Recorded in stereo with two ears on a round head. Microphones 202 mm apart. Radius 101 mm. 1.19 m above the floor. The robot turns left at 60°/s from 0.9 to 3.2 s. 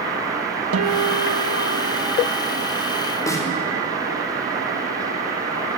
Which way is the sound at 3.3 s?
15° left (ahead or behind).